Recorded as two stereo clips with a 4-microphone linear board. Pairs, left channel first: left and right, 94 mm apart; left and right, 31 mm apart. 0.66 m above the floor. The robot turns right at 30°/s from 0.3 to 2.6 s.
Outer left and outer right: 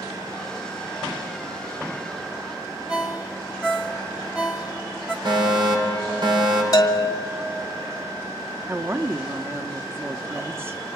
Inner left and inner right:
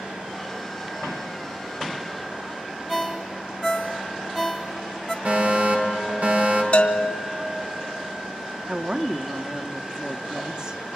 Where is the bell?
40° left (ahead or behind), 1.9 m.